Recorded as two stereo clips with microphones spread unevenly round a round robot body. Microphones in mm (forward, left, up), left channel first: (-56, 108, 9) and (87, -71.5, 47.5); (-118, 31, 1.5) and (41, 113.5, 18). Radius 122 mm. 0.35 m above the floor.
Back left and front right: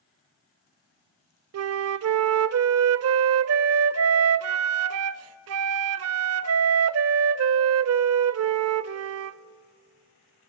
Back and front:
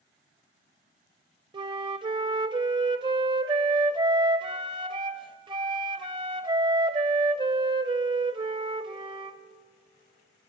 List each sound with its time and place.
1.5 s a flute: 40° right, 0.5 m